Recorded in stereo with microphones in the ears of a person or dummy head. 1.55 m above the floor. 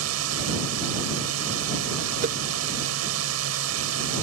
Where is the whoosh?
40° right (ahead or behind).